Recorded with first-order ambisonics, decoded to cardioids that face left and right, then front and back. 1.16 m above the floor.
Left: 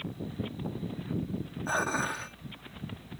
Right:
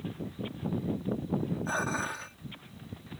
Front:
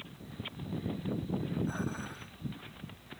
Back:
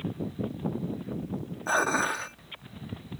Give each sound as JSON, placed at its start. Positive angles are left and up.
{"t": 1.7, "sound": "dishes clattering", "azimuth_deg": 170}